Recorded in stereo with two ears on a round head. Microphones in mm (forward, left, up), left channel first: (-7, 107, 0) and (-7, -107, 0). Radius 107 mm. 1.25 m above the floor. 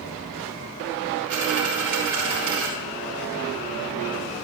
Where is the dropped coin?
80° right, 5 m.